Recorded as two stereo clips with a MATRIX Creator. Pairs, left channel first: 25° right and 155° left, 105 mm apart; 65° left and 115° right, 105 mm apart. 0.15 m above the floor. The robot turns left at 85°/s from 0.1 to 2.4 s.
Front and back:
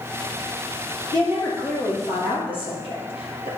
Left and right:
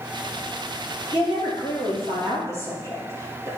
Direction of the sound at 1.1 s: 115° left.